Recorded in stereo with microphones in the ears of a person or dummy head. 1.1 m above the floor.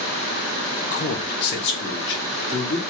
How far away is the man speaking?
About 0.5 m.